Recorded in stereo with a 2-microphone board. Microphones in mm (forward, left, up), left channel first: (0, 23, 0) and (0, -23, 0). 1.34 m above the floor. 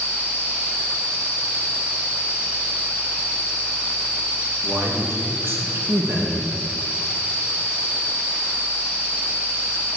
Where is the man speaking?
55° right (ahead or behind), 2 m.